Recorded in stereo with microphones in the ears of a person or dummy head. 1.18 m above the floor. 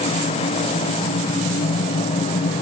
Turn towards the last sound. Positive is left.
No sound to turn to.